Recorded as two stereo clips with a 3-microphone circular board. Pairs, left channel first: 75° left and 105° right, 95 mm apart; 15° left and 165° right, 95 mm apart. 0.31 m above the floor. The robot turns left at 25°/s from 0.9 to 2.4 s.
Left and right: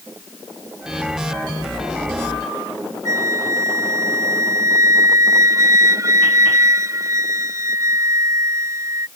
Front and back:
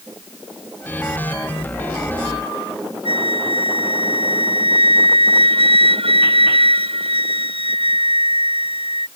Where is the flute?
160° right.